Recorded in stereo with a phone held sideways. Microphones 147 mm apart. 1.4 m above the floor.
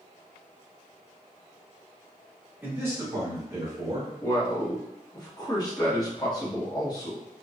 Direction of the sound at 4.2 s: 30° left (ahead or behind).